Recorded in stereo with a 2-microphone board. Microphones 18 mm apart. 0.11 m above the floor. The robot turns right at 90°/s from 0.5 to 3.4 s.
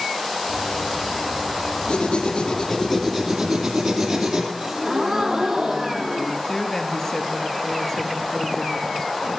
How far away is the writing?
About 2.5 m.